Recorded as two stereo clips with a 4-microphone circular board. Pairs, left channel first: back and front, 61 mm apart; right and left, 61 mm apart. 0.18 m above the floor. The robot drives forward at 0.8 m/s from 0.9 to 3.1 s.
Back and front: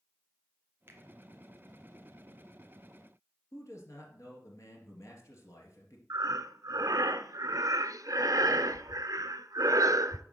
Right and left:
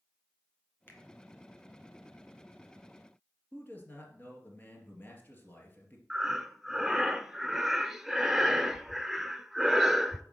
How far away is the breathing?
About 0.6 m.